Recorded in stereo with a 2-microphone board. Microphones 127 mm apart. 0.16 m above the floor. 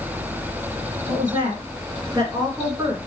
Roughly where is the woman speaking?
Right.